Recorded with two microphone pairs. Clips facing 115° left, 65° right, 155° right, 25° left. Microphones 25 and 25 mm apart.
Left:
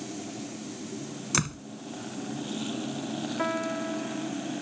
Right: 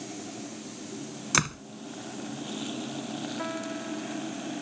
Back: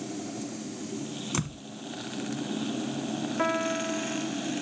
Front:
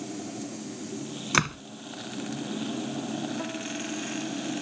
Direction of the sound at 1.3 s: 5° left.